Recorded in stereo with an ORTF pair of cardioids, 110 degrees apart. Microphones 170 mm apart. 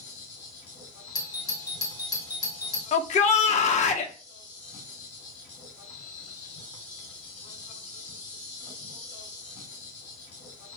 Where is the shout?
45° left, 0.6 m.